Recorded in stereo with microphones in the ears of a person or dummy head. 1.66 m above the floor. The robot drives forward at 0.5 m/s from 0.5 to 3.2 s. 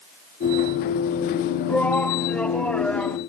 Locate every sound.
1.7 s a shout: 5° left (ahead or behind)